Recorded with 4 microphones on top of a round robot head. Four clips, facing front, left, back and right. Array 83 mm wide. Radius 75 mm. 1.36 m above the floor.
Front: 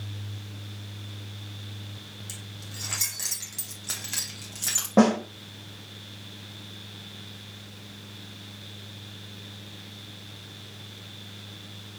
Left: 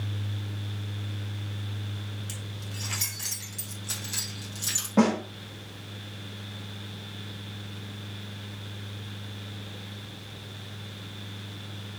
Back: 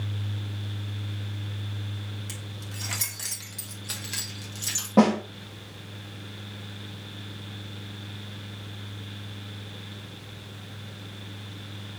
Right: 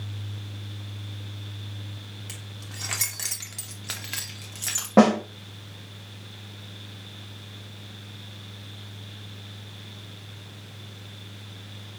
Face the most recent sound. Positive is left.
turn(degrees=-80)